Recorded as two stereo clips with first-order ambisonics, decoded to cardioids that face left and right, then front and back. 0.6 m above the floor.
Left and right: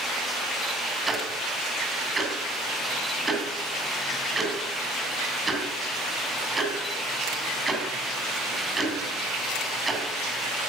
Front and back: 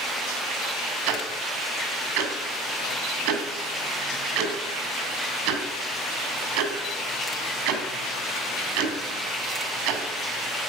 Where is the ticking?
165° right, 2.5 m.